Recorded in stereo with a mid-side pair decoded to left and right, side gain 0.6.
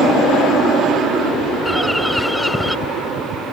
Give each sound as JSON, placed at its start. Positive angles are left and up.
{"t": 1.6, "sound": "a bird", "azimuth_deg": 0}